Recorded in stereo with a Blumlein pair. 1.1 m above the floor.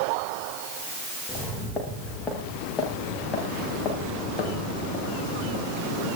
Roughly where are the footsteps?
Ahead.